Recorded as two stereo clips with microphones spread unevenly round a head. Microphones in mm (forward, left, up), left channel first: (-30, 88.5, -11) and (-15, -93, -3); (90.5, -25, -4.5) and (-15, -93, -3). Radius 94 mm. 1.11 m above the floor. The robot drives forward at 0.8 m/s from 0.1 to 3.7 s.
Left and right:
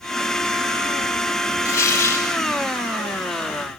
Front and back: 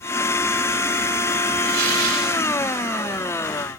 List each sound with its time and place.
1.6 s tearing paper: 170° left, 6 m